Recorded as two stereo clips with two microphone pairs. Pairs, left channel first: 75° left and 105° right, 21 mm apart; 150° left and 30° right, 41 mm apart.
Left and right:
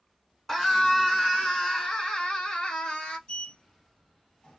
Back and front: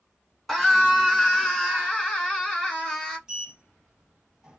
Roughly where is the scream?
Left.